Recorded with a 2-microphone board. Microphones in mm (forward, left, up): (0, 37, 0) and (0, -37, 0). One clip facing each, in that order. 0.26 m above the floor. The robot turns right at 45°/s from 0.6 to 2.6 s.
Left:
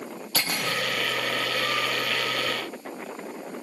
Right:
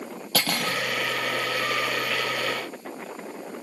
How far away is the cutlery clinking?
About 4 m.